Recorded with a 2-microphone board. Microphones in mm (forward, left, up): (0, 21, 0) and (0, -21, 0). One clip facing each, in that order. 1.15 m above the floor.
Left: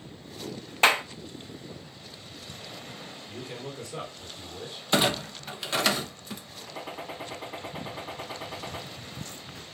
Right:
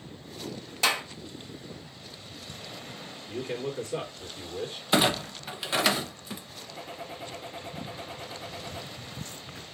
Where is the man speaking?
40° right (ahead or behind), 2.5 m.